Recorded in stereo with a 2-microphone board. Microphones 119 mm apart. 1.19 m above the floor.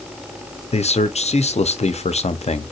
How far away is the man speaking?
About 0.5 m.